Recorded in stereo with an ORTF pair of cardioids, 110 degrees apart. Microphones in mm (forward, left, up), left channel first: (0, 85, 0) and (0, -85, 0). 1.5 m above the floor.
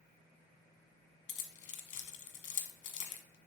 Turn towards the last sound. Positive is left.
turn(degrees=50)